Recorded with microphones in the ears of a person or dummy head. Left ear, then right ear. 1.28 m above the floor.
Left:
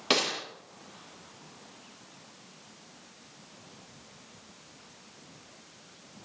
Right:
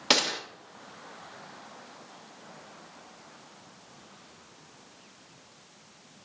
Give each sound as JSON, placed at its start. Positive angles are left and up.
{"t": 0.1, "sound": "a gunshot", "side_deg": -20, "distance_m": 1.1}